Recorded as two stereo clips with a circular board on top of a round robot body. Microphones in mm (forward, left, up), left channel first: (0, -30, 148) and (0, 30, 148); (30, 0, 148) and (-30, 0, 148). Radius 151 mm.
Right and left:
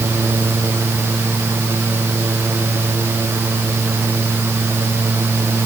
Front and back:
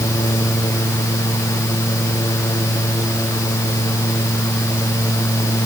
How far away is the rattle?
I don't hear a rattle.